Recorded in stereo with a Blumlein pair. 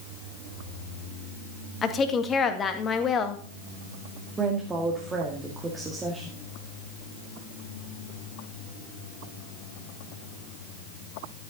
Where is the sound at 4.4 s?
15° right, 2 m.